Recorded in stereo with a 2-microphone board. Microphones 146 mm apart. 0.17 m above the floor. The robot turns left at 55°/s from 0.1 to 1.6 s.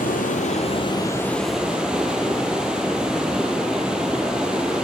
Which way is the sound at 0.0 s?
75° left.